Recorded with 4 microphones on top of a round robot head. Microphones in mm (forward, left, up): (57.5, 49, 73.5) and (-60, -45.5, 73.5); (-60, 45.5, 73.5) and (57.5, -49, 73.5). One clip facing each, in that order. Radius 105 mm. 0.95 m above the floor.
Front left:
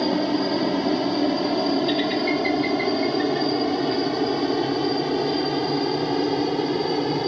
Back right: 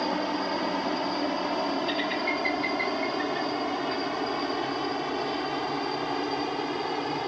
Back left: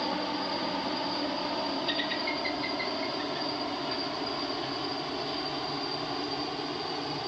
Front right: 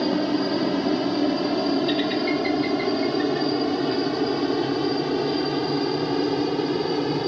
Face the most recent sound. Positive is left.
turn(degrees=-15)